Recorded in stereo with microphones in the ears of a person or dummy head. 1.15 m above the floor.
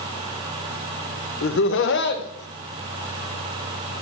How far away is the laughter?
About 1.1 m.